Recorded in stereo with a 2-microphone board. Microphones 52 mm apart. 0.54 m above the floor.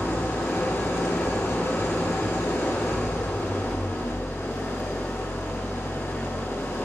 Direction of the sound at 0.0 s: 65° left (ahead or behind).